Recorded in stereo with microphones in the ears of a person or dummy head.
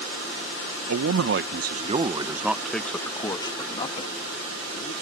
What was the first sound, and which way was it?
A man speaking, 65° right (ahead or behind).